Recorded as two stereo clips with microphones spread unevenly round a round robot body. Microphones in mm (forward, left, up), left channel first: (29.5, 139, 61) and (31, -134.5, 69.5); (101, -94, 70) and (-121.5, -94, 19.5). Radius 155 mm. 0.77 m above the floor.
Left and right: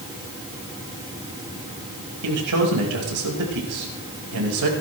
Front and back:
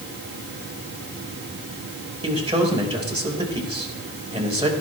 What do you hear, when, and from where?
2.2 s a man speaking: 115° right, 5 m